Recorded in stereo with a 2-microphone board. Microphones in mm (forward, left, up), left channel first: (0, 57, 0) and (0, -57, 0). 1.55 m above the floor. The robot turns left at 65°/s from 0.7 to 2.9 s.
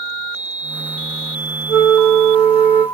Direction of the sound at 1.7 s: 95° left.